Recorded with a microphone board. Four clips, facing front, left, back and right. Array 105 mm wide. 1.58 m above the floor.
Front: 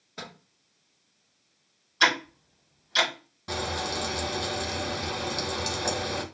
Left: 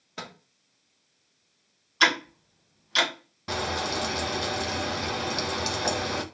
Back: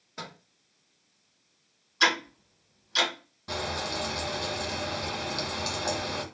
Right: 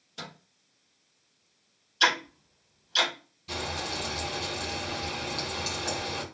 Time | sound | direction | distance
0.2 | a microwave | 90° left | 1.1 m
2.0 | ticking | 85° left | 1.7 m
3.5 | frying | 80° left | 0.6 m